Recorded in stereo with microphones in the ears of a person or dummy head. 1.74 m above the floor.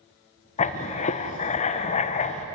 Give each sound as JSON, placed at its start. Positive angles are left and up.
{"t": 0.6, "sound": "writing", "side_deg": 35, "distance_m": 1.1}